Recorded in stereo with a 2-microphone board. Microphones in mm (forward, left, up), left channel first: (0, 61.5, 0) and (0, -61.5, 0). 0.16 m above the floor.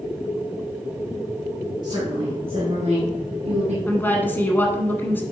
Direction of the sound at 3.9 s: 15° left (ahead or behind).